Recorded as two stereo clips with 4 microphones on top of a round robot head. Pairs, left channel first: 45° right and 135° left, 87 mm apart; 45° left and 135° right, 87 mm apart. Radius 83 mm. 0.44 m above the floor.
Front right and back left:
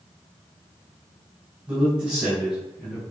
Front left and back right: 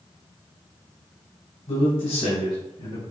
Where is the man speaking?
55° left, 3 m; by 3.0 s 50° left, 3.5 m.